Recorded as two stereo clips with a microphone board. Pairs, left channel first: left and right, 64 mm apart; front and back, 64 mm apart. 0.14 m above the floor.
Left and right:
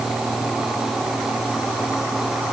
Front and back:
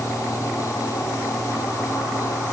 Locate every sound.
Only background noise.